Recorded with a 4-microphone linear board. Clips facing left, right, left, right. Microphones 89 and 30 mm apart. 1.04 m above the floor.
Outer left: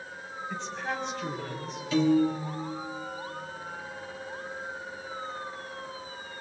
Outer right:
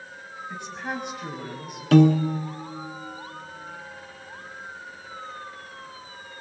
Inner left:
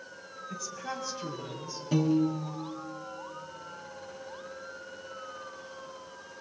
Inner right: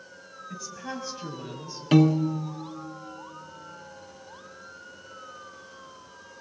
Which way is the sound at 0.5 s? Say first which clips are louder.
Outer right 1 dB, inner right 1 dB; 10° right (ahead or behind).